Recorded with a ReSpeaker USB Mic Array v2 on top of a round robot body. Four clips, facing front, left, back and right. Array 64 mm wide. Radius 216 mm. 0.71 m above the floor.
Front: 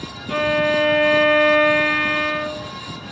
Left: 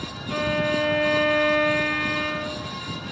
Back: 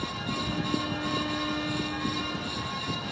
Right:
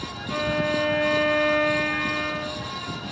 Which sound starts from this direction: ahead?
A violin, at 0.3 s.